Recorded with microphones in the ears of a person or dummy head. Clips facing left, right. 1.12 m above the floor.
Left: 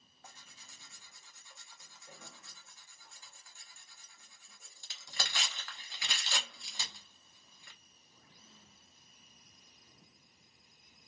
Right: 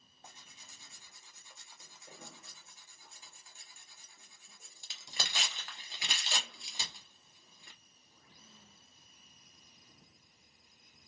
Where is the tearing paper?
15° right (ahead or behind), 0.8 m.